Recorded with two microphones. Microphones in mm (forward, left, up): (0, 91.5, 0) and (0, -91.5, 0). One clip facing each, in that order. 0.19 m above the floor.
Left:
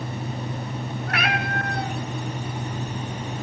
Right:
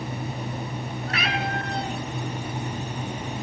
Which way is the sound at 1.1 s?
60° left (ahead or behind).